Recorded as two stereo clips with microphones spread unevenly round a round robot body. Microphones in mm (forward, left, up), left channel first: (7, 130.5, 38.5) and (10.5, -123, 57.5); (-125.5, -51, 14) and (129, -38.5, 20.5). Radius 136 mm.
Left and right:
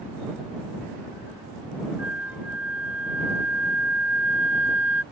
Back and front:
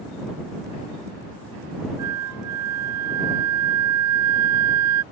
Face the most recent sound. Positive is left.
turn(degrees=-5)